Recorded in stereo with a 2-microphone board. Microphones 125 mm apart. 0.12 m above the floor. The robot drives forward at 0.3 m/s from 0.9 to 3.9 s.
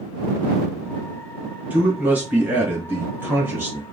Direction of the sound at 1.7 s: 10° right (ahead or behind).